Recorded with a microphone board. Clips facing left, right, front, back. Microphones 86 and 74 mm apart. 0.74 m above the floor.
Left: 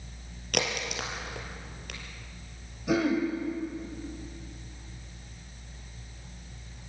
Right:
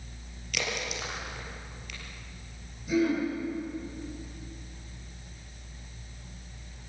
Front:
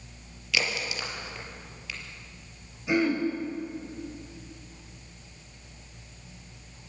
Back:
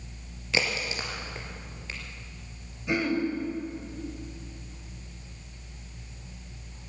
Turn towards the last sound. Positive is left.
turn(degrees=85)